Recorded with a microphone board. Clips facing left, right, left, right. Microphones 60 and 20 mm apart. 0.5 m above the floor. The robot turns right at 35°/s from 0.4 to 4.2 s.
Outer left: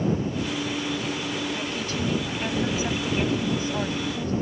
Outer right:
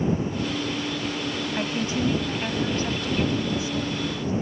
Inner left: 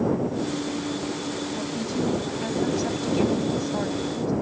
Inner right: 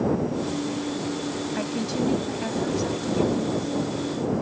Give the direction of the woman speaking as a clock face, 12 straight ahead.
1 o'clock.